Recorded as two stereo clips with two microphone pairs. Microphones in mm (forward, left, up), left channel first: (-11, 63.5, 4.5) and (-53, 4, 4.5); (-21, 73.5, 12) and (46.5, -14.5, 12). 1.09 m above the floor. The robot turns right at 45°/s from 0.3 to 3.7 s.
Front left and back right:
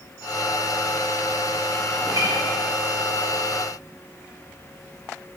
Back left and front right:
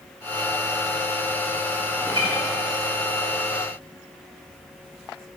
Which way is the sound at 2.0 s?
110° right.